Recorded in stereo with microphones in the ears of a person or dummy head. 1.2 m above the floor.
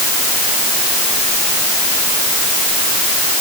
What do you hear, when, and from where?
Only background noise.